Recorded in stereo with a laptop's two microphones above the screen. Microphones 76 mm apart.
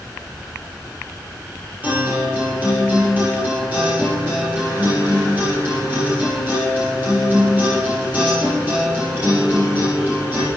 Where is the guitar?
20° right (ahead or behind), 8 m.